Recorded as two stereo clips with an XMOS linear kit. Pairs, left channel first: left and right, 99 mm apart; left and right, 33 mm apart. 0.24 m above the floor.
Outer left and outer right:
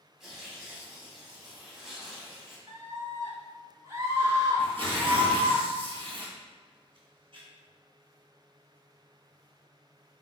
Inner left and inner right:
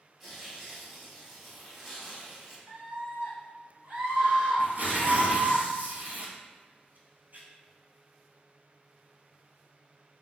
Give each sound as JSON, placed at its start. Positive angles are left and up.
{"t": 0.2, "sound": "tearing paper", "side_deg": -5, "distance_m": 0.8}
{"t": 2.7, "sound": "a scream", "side_deg": -35, "distance_m": 1.4}
{"t": 4.6, "sound": "tearing paper", "side_deg": -65, "distance_m": 1.1}